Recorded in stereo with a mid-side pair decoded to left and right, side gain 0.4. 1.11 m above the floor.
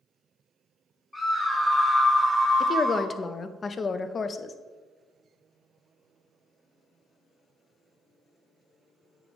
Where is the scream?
25° left, 1.9 m; by 3.1 s 15° right, 1.5 m.